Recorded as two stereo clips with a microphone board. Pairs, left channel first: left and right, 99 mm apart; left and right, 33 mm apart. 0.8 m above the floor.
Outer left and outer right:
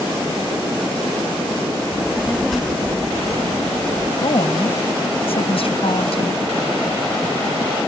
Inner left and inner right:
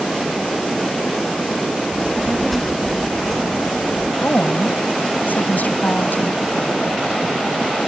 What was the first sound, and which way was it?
A child speaking, centre (ahead or behind).